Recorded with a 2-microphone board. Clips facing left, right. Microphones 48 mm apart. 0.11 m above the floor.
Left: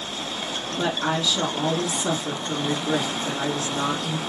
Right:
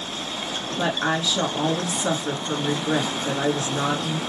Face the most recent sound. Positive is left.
turn(degrees=-30)  # may be behind; listen again after turning